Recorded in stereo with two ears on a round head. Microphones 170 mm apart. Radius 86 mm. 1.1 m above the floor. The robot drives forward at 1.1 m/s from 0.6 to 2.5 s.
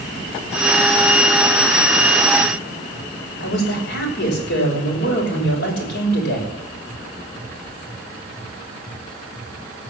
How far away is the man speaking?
About 5.5 m.